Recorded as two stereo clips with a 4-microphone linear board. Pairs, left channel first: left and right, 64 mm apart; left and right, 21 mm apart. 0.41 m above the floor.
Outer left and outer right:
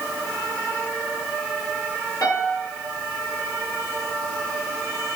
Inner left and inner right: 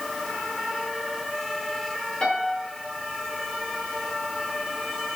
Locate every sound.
2.2 s a piano: 60° left (ahead or behind), 5.5 m